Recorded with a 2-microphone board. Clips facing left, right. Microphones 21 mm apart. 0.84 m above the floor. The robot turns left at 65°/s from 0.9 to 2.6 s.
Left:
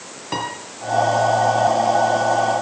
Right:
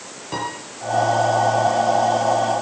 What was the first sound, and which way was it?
A piano, 30° left (ahead or behind).